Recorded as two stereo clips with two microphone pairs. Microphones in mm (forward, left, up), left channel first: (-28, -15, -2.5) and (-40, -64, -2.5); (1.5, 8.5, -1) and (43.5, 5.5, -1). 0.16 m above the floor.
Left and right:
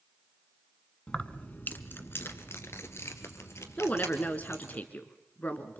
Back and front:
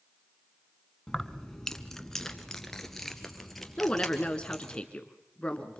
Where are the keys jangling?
115° left, 1.1 m; by 4.8 s 90° left, 3.5 m.